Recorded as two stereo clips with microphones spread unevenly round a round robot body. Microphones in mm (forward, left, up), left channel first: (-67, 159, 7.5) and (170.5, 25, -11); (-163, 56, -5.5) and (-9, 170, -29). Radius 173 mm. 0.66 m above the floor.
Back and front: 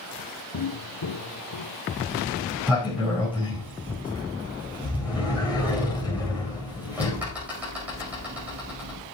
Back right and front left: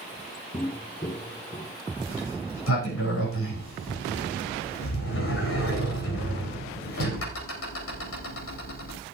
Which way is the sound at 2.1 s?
115° right.